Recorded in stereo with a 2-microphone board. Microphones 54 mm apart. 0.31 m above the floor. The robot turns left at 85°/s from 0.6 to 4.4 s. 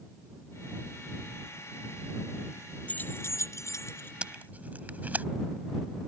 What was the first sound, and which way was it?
Keys jangling, 25° left (ahead or behind).